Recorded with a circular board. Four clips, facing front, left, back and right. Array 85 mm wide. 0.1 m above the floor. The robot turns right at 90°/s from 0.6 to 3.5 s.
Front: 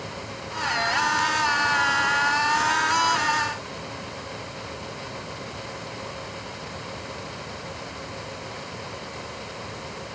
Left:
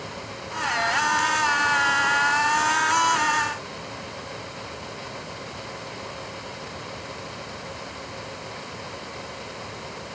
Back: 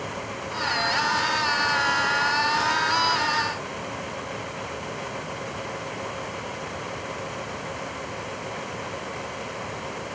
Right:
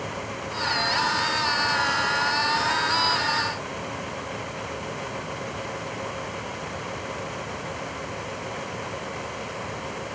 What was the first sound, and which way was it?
Only background noise.